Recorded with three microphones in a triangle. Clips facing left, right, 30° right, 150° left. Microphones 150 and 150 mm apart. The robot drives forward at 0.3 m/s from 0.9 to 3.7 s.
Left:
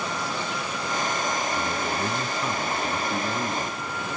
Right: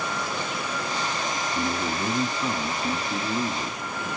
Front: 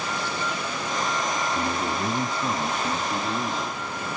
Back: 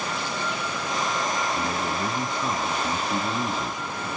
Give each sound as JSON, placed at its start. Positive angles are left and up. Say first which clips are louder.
{"t": 1.6, "sound": "a man speaking", "louder": "even, front 1 dB", "azimuth_deg": -55, "distance_m": 1.0}